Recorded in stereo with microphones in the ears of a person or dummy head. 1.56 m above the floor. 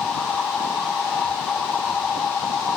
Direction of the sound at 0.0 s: 5° left (ahead or behind).